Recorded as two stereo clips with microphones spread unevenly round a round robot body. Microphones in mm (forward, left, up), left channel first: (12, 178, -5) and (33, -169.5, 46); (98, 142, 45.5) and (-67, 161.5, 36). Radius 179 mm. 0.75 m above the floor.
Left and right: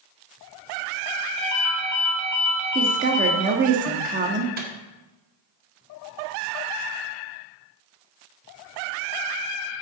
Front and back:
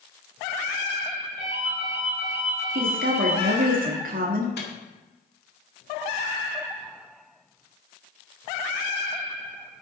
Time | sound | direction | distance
1.4 | a ringtone | 135° right | 4 m
2.8 | a woman speaking | 155° right | 1.4 m
4.6 | a microwave | 20° right | 1.9 m